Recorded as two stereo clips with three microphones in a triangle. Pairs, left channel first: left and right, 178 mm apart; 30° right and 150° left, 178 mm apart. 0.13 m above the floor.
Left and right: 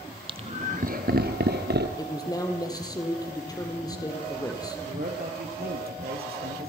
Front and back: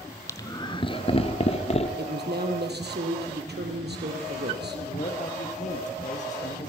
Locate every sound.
0.3 s laughter: 85° right, 1.1 m; by 1.9 s 80° right, 3 m
2.0 s a man speaking: 155° left, 4 m
4.9 s a man speaking: 70° right, 4 m